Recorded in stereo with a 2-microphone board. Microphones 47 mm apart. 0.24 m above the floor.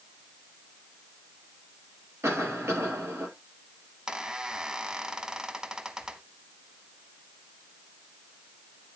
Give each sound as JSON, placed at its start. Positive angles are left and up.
{"t": 2.2, "sound": "a cough", "side_deg": -75, "distance_m": 5.0}
{"t": 4.1, "sound": "a squeak", "side_deg": -15, "distance_m": 0.9}